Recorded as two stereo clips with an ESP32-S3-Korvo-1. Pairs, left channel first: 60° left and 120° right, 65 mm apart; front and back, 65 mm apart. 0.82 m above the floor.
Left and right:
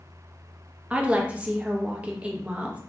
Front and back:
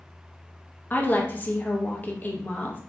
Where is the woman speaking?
55° right, 0.5 m.